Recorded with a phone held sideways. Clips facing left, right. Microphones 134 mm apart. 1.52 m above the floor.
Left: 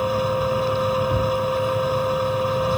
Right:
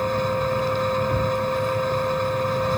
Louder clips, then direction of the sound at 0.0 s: Left 2 dB; 10° left (ahead or behind).